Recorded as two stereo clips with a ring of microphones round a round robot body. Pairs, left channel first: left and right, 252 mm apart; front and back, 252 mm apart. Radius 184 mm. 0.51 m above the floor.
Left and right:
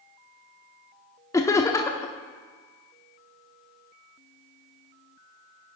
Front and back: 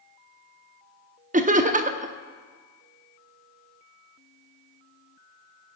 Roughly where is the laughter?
Behind left.